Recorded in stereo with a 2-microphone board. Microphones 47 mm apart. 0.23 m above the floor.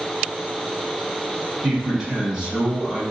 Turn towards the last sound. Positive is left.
turn(degrees=-10)  # may be behind; listen again after turning